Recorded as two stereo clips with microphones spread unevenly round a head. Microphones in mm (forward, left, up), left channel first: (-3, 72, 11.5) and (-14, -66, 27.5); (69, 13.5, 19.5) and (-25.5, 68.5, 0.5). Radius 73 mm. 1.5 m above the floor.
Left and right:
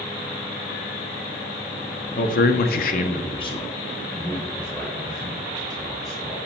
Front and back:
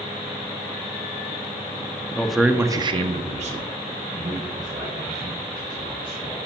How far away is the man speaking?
About 0.7 m.